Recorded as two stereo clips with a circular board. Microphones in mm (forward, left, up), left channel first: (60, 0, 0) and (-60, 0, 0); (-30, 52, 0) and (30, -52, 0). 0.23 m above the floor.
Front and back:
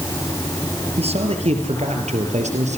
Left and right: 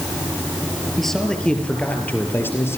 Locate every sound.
1.0 s a man speaking: 150° right, 5 m; by 2.8 s 170° right, 5.5 m